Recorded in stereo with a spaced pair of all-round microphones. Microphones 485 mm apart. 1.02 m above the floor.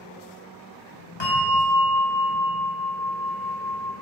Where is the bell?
60° left (ahead or behind), 1.9 m.